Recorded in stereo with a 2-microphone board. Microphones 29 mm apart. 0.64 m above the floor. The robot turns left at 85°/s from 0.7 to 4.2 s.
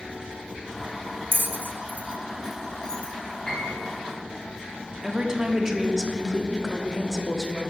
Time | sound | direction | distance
1.3 | a bell | 70° right (ahead or behind) | 0.6 m
3.5 | a piano | 155° left | 2.5 m
5.0 | a woman speaking | 15° right (ahead or behind) | 0.8 m